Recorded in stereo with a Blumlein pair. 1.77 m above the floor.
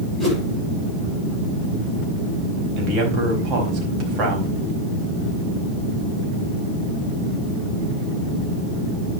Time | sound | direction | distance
0.2 | a whoosh | 15° right | 8.5 m
2.8 | a man speaking | 30° right | 4.5 m